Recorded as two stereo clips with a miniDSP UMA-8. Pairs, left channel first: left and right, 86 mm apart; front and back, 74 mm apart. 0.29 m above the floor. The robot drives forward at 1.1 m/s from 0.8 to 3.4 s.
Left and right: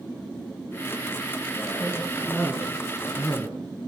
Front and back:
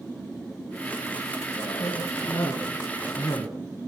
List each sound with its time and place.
1.6 s a cough: 15° left, 5.5 m; by 3.5 s 25° left, 3.5 m